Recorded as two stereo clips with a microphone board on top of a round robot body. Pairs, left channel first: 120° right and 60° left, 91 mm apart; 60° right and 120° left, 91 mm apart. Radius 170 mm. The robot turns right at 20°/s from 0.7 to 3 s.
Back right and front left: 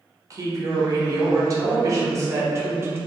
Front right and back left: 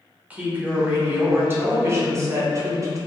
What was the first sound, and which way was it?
A woman speaking, 55° left.